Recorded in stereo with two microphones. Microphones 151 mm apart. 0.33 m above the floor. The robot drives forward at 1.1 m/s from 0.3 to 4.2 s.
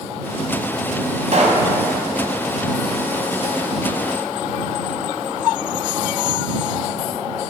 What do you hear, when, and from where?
1.3 s a pop: 55° right (ahead or behind), 1.6 m; by 1.7 s 45° right (ahead or behind), 1.9 m